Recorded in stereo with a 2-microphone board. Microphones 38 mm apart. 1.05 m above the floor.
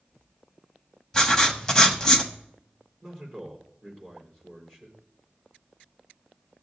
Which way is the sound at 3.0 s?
Centre (ahead or behind).